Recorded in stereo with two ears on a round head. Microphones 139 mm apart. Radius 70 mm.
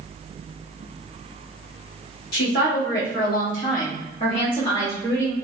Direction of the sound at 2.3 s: 65° left (ahead or behind).